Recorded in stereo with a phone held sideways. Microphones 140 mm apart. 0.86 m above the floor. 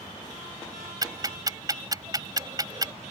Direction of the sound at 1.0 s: 30° right (ahead or behind).